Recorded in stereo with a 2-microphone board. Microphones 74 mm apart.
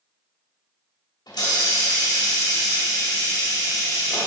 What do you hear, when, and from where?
1.3 s a hiss: 70° left (ahead or behind), 2 m